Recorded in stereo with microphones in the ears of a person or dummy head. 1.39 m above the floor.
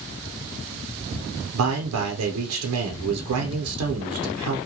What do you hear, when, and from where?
1.5 s a man speaking: 80° right, 0.7 m